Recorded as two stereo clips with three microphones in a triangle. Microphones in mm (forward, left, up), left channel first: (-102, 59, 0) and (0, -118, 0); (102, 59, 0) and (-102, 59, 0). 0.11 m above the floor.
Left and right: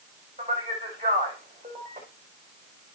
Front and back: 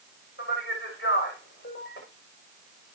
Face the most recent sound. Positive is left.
turn(degrees=0)